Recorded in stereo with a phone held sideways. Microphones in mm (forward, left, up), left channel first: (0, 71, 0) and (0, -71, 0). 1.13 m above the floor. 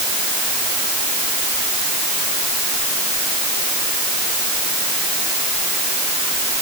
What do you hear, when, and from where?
Only background noise.